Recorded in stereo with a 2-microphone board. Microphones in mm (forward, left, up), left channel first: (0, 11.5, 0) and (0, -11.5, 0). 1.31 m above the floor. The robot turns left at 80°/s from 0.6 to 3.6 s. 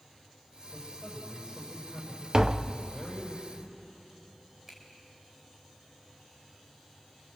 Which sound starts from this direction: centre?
A finger snap, at 4.7 s.